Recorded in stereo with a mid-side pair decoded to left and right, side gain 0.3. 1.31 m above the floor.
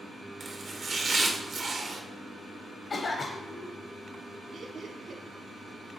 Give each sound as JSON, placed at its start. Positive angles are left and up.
{"t": 0.4, "sound": "chopping", "azimuth_deg": -65, "distance_m": 1.0}
{"t": 2.9, "sound": "a cough", "azimuth_deg": 65, "distance_m": 0.8}
{"t": 4.5, "sound": "laughter", "azimuth_deg": -65, "distance_m": 0.8}